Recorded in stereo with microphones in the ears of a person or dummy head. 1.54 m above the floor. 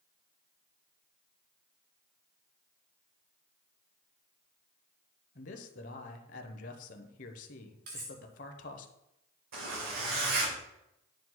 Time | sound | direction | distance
5.3 | a man speaking | 50° left (ahead or behind) | 0.9 m
7.9 | cutlery clinking | 55° right (ahead or behind) | 1.5 m
9.5 | a zipper | 70° right (ahead or behind) | 3 m